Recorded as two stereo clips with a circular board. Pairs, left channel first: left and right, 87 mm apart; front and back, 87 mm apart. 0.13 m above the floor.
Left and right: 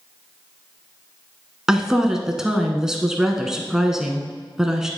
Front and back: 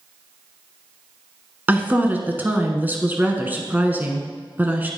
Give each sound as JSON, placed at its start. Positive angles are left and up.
{"t": 1.7, "sound": "a woman speaking", "azimuth_deg": -160, "distance_m": 1.0}